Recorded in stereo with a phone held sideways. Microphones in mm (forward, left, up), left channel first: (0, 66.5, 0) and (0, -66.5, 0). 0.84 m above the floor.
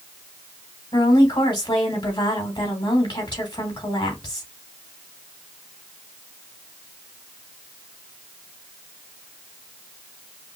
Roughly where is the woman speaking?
Left.